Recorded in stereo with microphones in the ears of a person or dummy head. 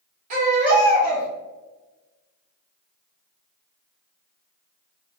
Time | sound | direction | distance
0.3 | a baby crying | 45° right (ahead or behind) | 0.9 m